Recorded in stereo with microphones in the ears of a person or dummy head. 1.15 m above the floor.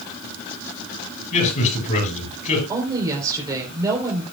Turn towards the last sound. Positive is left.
turn(degrees=-25)  # may be behind; listen again after turning